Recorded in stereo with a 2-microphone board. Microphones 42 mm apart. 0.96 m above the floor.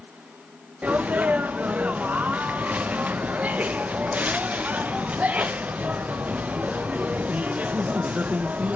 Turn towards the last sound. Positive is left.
turn(degrees=-35)  # may be behind; listen again after turning